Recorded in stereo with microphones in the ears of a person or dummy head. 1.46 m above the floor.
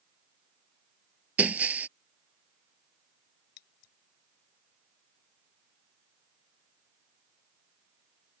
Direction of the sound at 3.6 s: 60° left (ahead or behind).